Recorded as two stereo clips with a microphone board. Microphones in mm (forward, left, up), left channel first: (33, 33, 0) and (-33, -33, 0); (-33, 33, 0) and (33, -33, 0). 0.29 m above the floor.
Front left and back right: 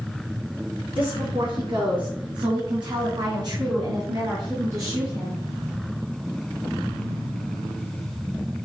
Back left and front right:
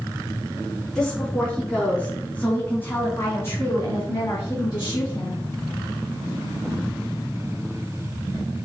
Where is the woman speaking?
140° right, 3.5 m; by 5.4 s 165° left, 2.5 m.